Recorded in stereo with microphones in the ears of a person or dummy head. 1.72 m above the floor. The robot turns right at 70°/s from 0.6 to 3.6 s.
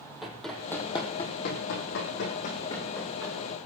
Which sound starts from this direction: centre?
Running footsteps, at 0.2 s.